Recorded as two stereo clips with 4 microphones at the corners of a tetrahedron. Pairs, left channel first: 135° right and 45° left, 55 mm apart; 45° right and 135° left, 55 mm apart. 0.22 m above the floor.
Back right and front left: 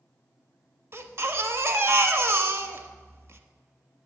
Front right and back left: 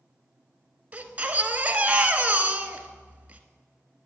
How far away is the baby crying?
About 0.9 m.